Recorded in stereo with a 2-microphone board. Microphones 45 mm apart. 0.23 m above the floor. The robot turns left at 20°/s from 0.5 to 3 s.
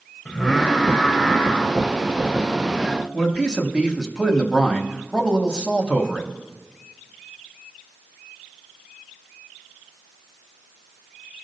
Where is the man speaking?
15° right (ahead or behind), 0.9 m.